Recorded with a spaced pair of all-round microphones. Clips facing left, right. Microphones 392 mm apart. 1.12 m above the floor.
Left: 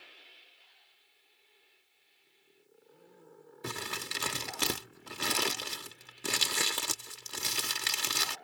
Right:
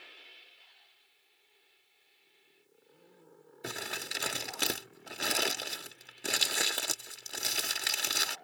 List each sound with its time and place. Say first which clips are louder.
3.6 s crumpling: left 1 dB; 10° left (ahead or behind)